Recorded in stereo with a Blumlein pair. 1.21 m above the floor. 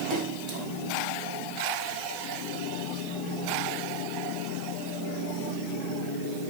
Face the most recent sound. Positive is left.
turn(degrees=-30)